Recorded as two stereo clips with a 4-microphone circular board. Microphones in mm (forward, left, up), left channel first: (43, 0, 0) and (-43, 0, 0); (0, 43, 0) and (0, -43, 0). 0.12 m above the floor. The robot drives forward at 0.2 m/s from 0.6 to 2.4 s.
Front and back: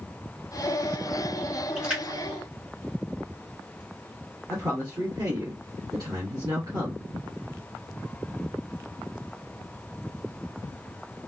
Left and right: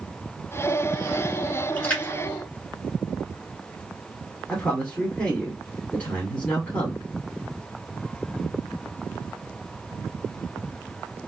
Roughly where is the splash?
Behind left.